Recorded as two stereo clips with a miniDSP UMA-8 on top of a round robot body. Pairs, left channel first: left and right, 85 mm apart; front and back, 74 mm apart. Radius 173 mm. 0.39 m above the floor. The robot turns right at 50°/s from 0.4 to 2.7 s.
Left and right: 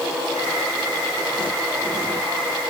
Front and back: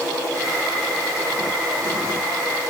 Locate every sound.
Only background noise.